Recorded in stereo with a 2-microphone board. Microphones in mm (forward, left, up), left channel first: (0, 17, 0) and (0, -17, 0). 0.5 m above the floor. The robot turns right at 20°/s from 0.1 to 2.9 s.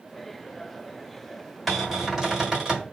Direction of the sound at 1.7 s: 5° right (ahead or behind).